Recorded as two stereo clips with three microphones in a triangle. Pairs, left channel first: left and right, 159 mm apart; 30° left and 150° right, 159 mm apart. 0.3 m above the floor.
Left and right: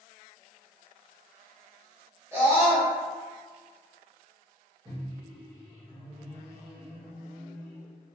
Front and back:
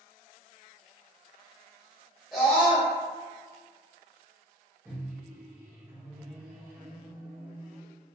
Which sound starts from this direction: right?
A microwave, at 4.8 s.